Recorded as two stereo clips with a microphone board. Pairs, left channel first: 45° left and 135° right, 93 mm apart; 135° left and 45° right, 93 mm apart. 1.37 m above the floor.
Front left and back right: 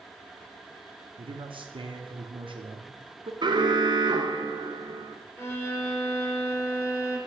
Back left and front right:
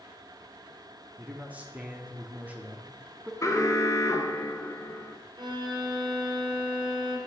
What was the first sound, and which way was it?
A man speaking, 120° right.